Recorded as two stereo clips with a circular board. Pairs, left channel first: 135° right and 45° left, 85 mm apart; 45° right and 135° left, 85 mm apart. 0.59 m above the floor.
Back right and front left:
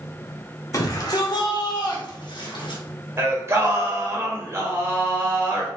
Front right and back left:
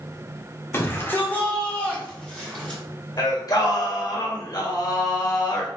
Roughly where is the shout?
Right.